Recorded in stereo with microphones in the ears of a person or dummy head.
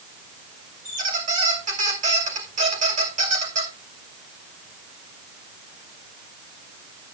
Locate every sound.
0.8 s a squeak: 40° right (ahead or behind), 2.5 m